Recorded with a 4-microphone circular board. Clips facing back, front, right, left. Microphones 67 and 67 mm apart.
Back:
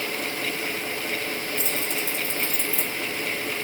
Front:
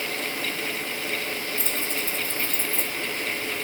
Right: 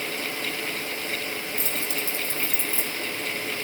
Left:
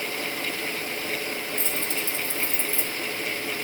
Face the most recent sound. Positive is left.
turn(degrees=-165)